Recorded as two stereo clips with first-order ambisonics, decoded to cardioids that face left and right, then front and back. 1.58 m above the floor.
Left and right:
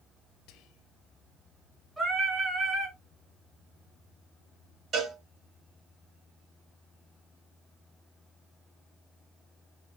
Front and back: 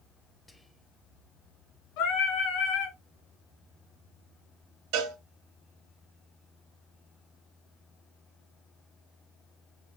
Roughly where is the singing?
Ahead.